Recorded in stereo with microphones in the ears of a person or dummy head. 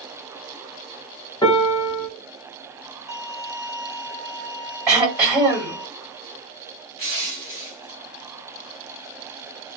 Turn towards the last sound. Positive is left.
turn(degrees=30)  # may be behind; listen again after turning